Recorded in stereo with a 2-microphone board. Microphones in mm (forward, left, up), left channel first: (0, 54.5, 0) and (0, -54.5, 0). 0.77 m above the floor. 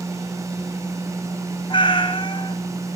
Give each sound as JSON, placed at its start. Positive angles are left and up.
{"t": 1.7, "sound": "a cat meowing", "side_deg": 55, "distance_m": 2.5}